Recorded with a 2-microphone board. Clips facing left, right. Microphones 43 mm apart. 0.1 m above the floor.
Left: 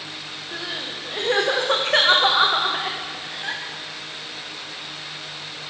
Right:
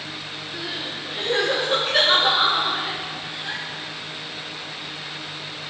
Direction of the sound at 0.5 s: 70° left (ahead or behind).